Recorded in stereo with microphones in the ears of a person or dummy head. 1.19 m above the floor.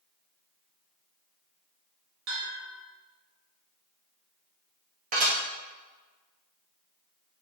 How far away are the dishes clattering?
About 0.8 m.